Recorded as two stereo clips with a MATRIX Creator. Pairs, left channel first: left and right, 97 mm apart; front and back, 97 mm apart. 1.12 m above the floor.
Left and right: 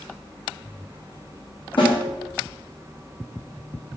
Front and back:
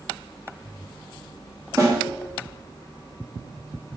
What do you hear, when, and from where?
1.8 s a snare drum: 125° left, 2.5 m